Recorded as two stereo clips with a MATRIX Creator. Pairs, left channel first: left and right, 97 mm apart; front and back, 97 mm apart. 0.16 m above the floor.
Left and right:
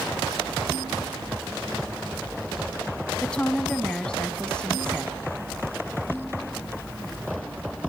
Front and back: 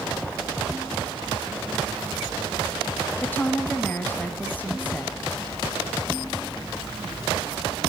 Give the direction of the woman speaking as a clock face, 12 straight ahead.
11 o'clock.